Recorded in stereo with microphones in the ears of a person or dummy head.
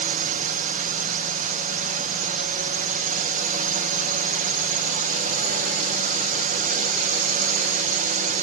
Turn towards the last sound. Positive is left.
turn(degrees=-40)  # may be behind; listen again after turning